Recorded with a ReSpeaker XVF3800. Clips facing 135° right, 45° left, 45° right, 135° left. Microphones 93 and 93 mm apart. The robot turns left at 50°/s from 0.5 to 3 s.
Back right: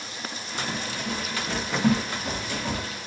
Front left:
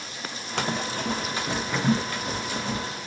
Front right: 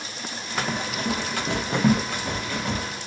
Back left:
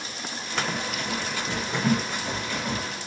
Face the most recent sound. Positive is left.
turn(degrees=-120)